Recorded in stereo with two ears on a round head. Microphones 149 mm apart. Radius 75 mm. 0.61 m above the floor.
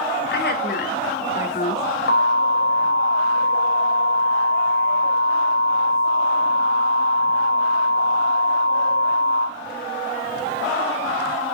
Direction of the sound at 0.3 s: 65° left (ahead or behind).